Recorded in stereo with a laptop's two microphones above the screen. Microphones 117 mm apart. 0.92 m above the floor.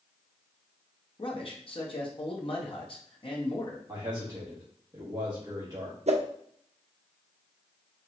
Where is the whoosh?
65° right (ahead or behind), 0.6 m.